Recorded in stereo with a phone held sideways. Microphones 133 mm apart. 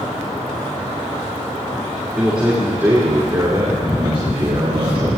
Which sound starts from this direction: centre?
A man speaking, at 2.2 s.